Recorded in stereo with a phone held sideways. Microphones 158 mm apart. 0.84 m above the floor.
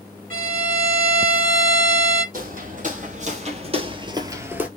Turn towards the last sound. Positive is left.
turn(degrees=-5)  # may be behind; listen again after turning